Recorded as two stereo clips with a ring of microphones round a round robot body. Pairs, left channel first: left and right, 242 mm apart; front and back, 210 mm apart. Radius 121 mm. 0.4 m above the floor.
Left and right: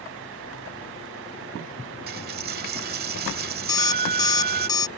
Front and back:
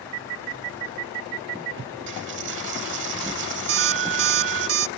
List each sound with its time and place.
2.1 s a dropped coin: 140° right
3.7 s an alarm clock: 165° left